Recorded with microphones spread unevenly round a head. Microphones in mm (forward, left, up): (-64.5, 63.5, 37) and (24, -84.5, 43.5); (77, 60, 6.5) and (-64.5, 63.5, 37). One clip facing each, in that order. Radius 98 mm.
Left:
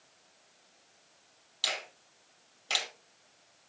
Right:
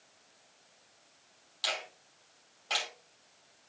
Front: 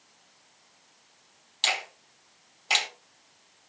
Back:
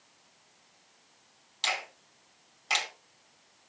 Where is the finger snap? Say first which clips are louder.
Right 1 dB, front 2 dB; 60° left, 2.5 m.